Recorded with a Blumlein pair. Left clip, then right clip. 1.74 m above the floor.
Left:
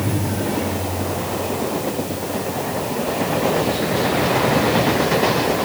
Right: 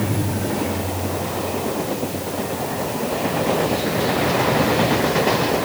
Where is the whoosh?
No whoosh in this recording.